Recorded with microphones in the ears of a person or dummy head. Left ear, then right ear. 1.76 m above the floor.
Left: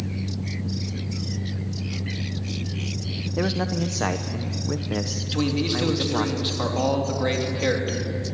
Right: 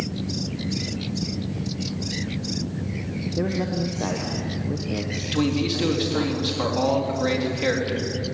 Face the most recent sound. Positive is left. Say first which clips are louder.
# right 2 dB
turn(degrees=5)  # may be behind; listen again after turning